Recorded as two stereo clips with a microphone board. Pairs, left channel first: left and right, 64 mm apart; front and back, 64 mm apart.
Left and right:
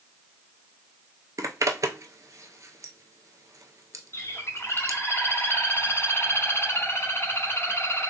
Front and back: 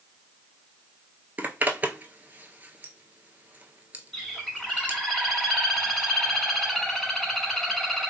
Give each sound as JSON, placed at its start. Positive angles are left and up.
{"t": 1.4, "sound": "a zipper", "azimuth_deg": -120, "distance_m": 0.5}
{"t": 4.1, "sound": "a bird", "azimuth_deg": 90, "distance_m": 1.1}